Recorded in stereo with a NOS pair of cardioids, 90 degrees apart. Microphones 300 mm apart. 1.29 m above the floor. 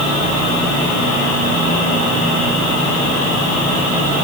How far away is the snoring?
I don't hear snoring.